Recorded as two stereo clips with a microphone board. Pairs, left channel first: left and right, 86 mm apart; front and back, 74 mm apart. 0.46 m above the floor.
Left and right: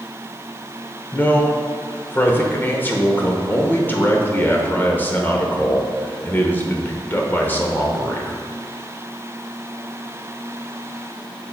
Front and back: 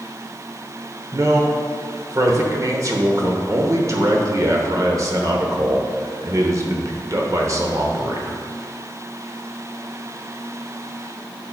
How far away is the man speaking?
About 1.1 m.